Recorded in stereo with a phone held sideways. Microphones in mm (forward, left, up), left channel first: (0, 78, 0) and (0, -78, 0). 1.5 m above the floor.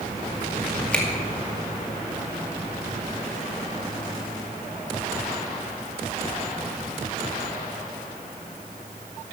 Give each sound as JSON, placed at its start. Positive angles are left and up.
{"t": 0.9, "sound": "a finger snap", "side_deg": 10, "distance_m": 2.0}